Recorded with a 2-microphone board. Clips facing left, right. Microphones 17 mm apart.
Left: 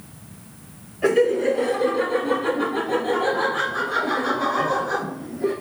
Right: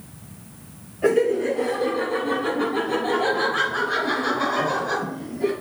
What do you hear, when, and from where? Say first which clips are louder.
1.0 s laughter: left 1 dB; 30° left (ahead or behind), 1.9 m; by 5.5 s 55° right (ahead or behind), 3 m